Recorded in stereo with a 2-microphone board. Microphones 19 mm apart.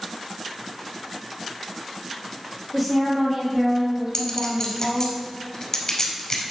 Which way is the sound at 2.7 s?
5° right (ahead or behind).